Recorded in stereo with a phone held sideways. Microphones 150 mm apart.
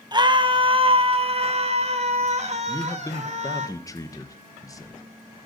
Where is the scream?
30° right (ahead or behind), 1.5 m; by 3.7 s 50° right (ahead or behind), 3 m.